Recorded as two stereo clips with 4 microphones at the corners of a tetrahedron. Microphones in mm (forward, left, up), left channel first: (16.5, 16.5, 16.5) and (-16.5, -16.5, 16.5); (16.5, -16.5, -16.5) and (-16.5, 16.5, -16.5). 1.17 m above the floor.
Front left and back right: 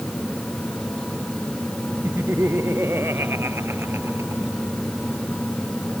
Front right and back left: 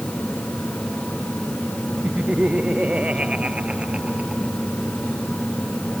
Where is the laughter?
165° right; by 4.5 s 160° right.